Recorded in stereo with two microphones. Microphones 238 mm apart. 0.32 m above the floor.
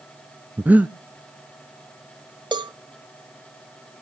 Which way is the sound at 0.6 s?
5° right (ahead or behind).